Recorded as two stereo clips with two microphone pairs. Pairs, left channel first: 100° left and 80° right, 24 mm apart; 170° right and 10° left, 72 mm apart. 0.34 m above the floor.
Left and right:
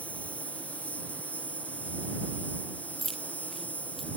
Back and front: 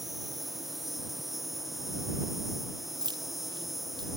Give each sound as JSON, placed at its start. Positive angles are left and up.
{"t": 0.0, "sound": "an insect", "azimuth_deg": 95}
{"t": 3.0, "sound": "keys jangling", "azimuth_deg": 15}